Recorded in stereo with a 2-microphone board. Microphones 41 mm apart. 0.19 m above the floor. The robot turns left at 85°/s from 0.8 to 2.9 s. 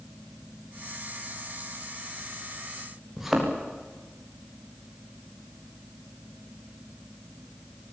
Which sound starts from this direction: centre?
A thud, at 3.2 s.